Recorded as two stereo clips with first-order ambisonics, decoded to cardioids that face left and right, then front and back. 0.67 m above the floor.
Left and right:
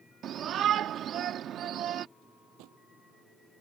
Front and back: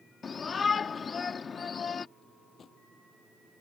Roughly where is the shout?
Ahead right.